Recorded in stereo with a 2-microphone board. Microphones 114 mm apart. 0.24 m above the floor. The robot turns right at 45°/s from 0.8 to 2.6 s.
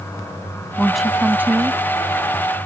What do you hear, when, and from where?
0.8 s a woman speaking: 5° left (ahead or behind); by 2.7 s 45° right (ahead or behind)